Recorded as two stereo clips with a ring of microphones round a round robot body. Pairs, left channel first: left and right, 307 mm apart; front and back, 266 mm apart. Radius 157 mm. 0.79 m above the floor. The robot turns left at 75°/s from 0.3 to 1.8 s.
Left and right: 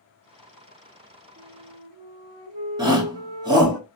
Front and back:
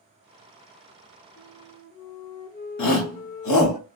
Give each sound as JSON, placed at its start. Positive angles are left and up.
{"t": 1.4, "sound": "a flute", "azimuth_deg": -35, "distance_m": 0.8}
{"t": 2.8, "sound": "a shout", "azimuth_deg": -15, "distance_m": 1.3}